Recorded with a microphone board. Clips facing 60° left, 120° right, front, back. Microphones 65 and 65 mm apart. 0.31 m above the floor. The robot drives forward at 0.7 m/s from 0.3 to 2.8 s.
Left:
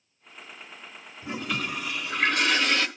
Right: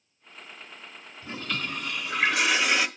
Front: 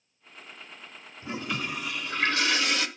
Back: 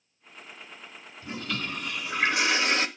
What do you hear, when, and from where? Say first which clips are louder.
1.2 s a toilet flushing: left 2 dB, front 1 dB; 10° left, 1.0 m; by 2.9 s 175° left, 1.1 m